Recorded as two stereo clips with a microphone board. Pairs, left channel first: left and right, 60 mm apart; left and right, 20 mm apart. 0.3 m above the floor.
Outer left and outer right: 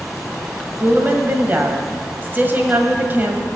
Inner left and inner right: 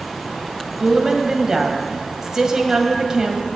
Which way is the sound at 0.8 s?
35° right (ahead or behind).